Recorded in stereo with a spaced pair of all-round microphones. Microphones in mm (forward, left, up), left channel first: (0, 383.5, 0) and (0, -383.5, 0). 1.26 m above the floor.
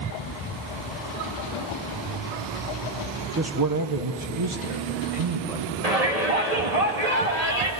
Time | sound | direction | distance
3.4 | a man speaking | 15° right (ahead or behind) | 0.8 m
5.8 | a shout | 50° right (ahead or behind) | 2.5 m